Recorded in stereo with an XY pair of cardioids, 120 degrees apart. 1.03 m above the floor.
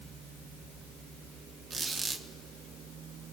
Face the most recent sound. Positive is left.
turn(degrees=-35)